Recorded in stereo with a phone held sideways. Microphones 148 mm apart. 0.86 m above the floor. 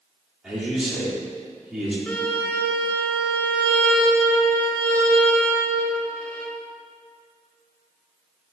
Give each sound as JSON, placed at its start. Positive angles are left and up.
{"t": 0.4, "sound": "a man speaking", "side_deg": -5, "distance_m": 1.9}
{"t": 2.1, "sound": "a violin", "side_deg": 10, "distance_m": 0.7}